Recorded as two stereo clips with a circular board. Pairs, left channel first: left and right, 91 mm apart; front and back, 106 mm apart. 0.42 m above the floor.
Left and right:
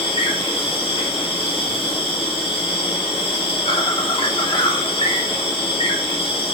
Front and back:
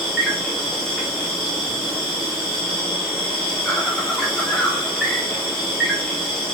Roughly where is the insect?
Left.